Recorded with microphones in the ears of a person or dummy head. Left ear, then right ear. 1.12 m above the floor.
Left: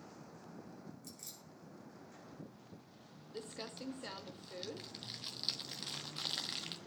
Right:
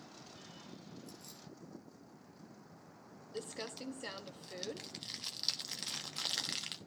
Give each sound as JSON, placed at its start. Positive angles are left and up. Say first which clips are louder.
{"t": 1.0, "sound": "keys jangling", "louder": "even", "side_deg": 60, "distance_m": 5.0}
{"t": 3.3, "sound": "crumpling", "louder": "right 3 dB", "side_deg": -15, "distance_m": 1.1}